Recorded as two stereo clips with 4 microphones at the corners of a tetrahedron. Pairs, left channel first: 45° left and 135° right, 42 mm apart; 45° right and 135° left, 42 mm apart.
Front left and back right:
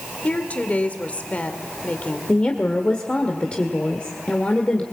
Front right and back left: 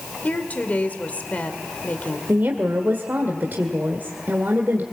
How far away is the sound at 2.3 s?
About 1.8 m.